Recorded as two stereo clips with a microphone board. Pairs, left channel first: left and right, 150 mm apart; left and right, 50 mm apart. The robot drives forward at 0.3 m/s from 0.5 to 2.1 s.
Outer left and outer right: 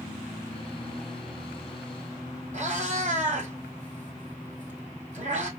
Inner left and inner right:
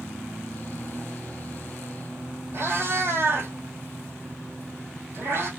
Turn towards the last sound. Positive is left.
turn(degrees=-55)  # may be behind; listen again after turning